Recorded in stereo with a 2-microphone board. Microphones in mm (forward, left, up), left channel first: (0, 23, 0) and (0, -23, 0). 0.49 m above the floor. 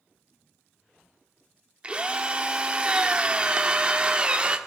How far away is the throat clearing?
I don't hear throat clearing.